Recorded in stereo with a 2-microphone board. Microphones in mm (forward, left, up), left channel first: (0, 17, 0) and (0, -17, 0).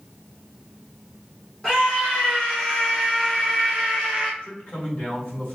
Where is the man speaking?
40° left (ahead or behind), 1.7 m.